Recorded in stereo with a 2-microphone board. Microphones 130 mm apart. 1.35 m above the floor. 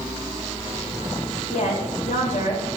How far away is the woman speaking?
About 3 m.